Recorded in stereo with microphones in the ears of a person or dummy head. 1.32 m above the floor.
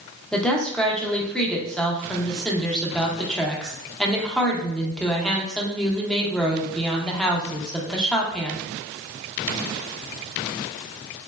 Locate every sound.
0.3 s a woman speaking: 5° left (ahead or behind), 0.6 m